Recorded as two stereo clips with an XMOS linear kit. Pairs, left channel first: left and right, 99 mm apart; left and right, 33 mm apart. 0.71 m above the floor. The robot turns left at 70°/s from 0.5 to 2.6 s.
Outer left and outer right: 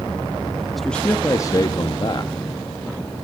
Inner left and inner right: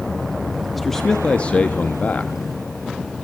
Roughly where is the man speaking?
Behind.